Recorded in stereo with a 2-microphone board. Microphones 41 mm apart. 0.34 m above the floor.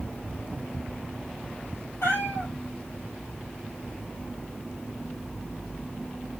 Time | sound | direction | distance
2.0 | a cat meowing | 85° left | 3.5 m